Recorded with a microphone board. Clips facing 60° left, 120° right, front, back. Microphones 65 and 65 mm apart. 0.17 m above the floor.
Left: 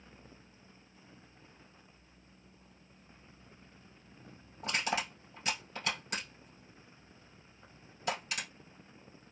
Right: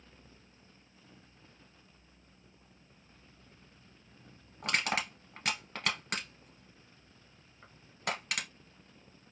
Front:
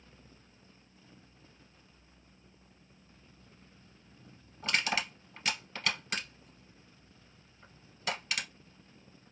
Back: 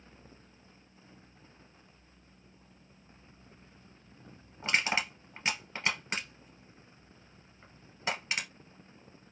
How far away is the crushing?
About 1.7 m.